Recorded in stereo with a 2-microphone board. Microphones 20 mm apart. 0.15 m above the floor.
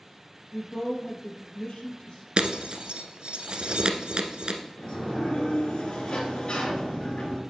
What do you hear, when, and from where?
0.5 s a woman speaking: 40° left (ahead or behind), 2.5 m
2.4 s breaking glass: 55° right (ahead or behind), 1.0 m
4.8 s a sliding door: 50° left (ahead or behind), 2.0 m